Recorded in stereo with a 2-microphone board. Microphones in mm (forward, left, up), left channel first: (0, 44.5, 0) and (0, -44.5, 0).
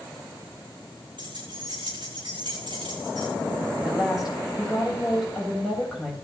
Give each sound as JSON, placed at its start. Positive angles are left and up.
{"t": 1.2, "sound": "keys jangling", "side_deg": -70, "distance_m": 7.0}
{"t": 3.8, "sound": "a woman speaking", "side_deg": -5, "distance_m": 7.5}